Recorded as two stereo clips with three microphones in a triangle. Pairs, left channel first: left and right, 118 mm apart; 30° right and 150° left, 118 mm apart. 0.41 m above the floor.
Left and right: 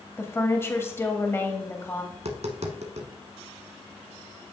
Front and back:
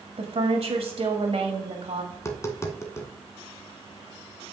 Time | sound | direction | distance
0.2 | a woman speaking | 155° left | 1.7 m
2.1 | tapping | 95° right | 1.1 m